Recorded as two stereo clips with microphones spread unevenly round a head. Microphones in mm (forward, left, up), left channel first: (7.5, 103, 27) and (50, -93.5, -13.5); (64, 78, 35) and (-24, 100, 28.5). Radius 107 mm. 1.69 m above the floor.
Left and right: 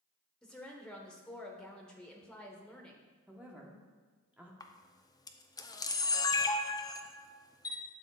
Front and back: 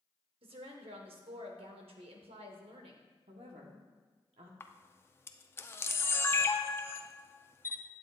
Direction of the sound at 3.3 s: 165° right.